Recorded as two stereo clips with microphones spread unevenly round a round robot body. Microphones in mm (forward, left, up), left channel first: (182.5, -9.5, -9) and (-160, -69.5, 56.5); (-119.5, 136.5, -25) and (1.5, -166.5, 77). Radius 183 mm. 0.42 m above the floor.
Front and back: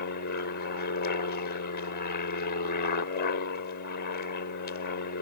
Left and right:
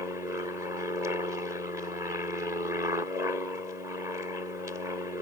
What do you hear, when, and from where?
0.0 s an aircraft: 30° left